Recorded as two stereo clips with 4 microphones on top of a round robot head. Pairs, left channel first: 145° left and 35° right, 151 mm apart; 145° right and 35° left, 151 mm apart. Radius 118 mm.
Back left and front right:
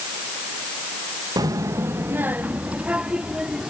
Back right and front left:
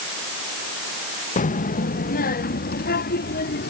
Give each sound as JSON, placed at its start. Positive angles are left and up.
{"t": 1.4, "sound": "a child speaking", "azimuth_deg": -105}